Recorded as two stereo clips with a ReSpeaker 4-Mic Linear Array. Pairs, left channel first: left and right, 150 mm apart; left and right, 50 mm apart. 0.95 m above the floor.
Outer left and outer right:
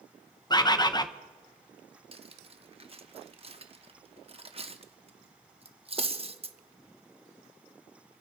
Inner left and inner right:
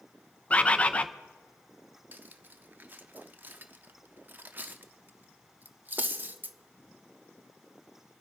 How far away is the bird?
About 0.7 m.